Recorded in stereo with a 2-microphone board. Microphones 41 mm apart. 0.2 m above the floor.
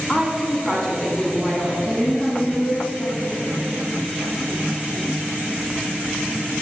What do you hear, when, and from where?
0.1 s a woman speaking: 15° left (ahead or behind), 1.6 m
1.9 s a woman speaking: 35° left (ahead or behind), 1.9 m